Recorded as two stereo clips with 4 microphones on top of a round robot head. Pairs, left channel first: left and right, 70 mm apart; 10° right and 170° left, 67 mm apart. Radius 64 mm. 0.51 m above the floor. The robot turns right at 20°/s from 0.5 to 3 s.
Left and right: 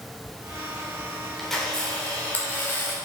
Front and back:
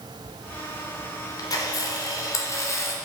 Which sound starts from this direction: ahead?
A camera shutter, at 1.4 s.